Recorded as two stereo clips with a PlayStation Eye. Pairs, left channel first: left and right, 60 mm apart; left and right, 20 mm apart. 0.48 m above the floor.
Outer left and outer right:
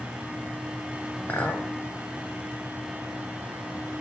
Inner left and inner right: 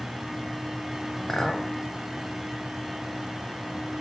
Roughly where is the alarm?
I don't hear an alarm.